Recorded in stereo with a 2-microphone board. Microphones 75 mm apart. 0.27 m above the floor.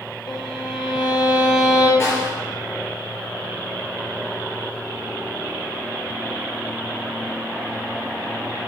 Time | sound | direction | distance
0.3 | a violin | 75° left (ahead or behind) | 2.5 m
2.0 | a snare drum | 35° left (ahead or behind) | 3 m